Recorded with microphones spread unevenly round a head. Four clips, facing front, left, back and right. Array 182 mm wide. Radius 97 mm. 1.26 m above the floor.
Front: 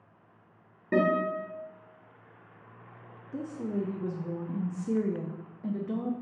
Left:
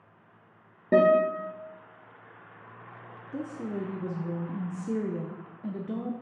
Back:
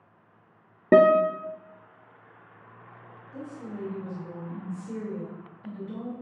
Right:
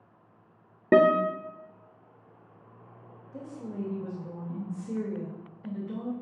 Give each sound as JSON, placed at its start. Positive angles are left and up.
{"t": 0.9, "sound": "a guitar", "azimuth_deg": -155, "distance_m": 0.6}
{"t": 3.3, "sound": "a woman speaking", "azimuth_deg": 50, "distance_m": 0.7}